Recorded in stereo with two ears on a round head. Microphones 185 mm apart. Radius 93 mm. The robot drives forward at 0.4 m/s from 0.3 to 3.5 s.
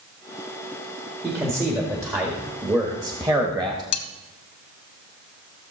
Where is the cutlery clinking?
80° left, 1.0 m.